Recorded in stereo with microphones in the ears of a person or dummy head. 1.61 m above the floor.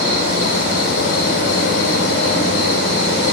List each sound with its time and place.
0.0 s an insect: 65° left (ahead or behind), 3.5 m